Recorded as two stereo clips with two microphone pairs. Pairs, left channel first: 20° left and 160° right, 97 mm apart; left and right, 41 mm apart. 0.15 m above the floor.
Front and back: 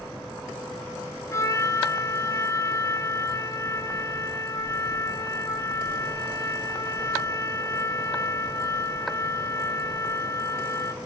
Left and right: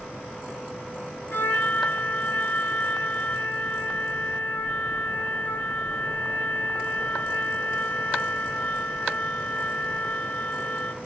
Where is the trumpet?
70° left, 1.7 m.